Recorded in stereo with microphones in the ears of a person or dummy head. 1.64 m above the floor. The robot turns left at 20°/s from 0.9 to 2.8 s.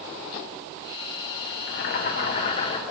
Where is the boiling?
55° left (ahead or behind), 1.6 m; by 2.8 s 30° left (ahead or behind), 1.6 m.